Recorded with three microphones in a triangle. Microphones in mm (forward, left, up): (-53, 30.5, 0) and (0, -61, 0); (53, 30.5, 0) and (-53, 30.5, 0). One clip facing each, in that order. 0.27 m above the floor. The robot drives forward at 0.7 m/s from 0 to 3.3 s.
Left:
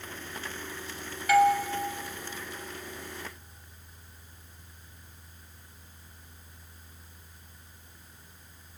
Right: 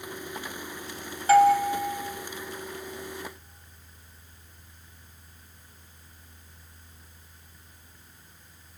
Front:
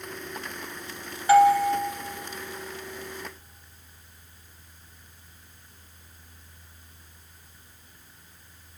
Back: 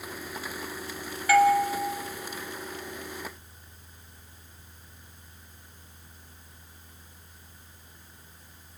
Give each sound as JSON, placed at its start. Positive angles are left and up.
{"t": 1.3, "sound": "a doorbell", "azimuth_deg": -45, "distance_m": 1.6}